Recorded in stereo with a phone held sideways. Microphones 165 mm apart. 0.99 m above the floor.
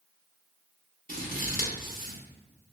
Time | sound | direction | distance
1.1 | scissors | 55° left (ahead or behind) | 0.8 m